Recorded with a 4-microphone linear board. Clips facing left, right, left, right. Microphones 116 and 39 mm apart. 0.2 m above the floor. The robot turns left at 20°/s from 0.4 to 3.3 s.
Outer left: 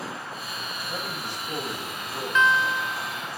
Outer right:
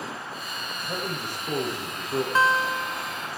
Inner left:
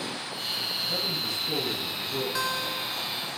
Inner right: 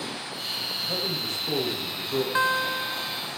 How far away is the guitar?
About 0.9 m.